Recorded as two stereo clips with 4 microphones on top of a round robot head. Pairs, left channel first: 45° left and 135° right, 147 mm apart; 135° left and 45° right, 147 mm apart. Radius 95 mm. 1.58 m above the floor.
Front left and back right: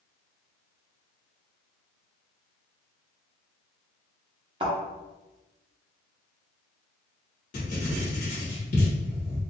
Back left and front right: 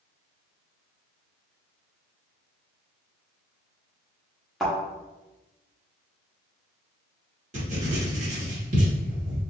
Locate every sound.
4.6 s a thud: 130° right, 1.0 m
7.5 s writing: straight ahead, 1.4 m